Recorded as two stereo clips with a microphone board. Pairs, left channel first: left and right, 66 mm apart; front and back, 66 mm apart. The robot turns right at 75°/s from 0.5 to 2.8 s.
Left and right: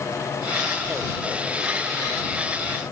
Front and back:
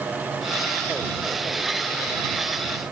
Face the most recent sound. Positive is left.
No sound to turn to.